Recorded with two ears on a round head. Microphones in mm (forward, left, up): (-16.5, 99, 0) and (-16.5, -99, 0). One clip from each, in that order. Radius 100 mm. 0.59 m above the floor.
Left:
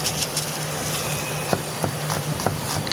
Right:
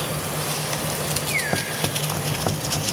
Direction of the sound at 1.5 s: 65° left (ahead or behind).